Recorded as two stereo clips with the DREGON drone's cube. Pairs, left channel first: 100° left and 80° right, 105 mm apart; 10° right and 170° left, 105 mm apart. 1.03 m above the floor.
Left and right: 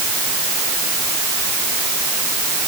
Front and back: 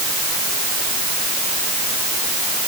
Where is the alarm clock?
No alarm clock in this recording.